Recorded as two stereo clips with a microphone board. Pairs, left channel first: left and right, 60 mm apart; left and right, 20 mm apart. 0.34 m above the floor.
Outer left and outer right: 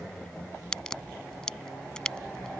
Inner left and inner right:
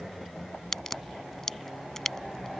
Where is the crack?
10° left (ahead or behind).